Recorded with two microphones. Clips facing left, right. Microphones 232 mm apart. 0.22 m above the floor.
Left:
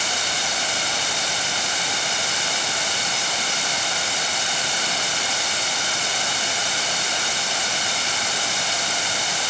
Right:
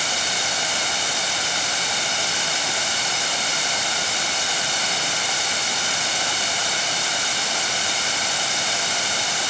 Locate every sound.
Only background noise.